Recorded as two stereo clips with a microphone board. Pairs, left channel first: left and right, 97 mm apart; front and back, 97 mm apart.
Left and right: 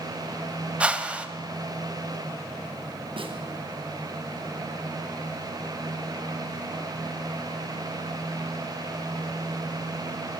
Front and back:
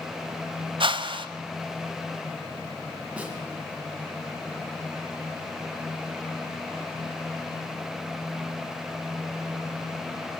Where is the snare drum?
105° right, 3 m.